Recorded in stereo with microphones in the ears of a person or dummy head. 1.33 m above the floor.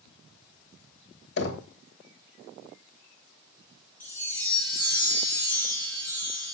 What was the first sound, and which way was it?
Knocking, 65° left (ahead or behind).